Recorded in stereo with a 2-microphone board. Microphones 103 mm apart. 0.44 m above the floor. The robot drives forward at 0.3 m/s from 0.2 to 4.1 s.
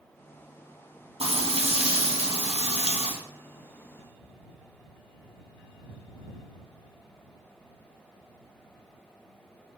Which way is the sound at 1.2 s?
70° right (ahead or behind).